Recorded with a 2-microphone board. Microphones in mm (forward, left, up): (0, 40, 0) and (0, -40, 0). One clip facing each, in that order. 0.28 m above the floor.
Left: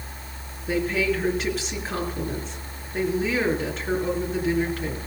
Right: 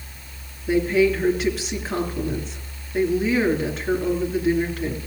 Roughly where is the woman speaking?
Centre.